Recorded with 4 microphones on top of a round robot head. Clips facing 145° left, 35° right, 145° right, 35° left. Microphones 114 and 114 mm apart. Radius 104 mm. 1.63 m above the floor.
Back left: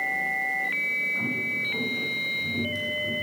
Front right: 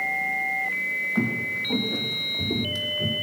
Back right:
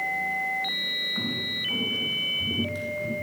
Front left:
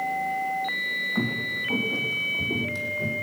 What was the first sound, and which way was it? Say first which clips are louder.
Footsteps: front right 8 dB, front left 5 dB; 15° right.